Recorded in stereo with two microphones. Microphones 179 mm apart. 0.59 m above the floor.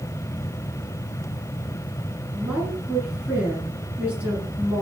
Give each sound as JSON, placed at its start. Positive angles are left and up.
{"t": 2.3, "sound": "a woman speaking", "side_deg": -10, "distance_m": 9.0}